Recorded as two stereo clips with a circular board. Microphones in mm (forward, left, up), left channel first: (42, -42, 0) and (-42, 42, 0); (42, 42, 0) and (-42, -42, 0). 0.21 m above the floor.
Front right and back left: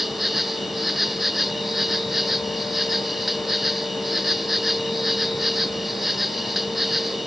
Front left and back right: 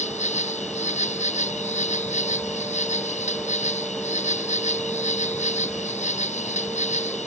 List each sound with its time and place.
0.0 s an insect: 45° left